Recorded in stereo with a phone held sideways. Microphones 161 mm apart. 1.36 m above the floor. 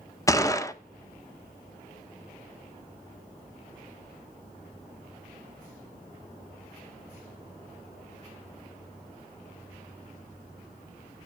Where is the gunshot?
20° left (ahead or behind), 0.7 m.